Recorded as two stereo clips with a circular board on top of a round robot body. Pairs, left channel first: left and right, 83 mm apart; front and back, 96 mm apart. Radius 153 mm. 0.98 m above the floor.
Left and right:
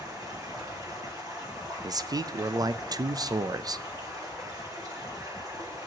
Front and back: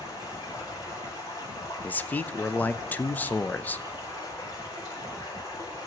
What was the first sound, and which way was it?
Running water, 50° right.